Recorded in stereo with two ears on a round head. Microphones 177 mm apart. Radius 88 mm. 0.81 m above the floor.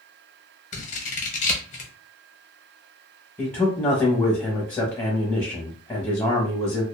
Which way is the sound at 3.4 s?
10° left (ahead or behind).